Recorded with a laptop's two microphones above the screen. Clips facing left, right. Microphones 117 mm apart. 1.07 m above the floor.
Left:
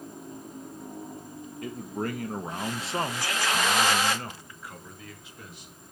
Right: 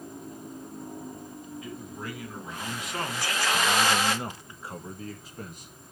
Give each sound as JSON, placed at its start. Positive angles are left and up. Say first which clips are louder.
{"t": 1.6, "sound": "a man speaking", "louder": "left 9 dB", "side_deg": 60, "distance_m": 1.7}